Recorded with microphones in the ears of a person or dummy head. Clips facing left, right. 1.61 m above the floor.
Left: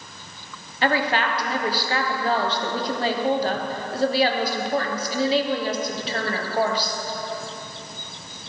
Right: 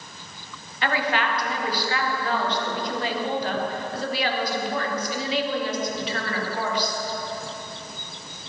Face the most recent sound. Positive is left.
turn(degrees=30)  # may be behind; listen again after turning